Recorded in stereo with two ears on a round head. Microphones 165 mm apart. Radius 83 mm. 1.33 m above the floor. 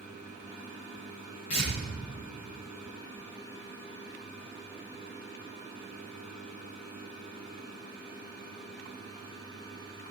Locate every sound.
1.5 s tearing paper: 40° left (ahead or behind), 5 m